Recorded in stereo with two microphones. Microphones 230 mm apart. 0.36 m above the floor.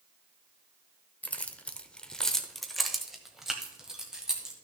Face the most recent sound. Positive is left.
turn(degrees=-5)  # may be behind; listen again after turning